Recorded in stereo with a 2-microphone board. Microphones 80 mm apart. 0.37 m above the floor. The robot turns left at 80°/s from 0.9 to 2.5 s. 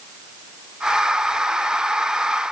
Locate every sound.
Only background noise.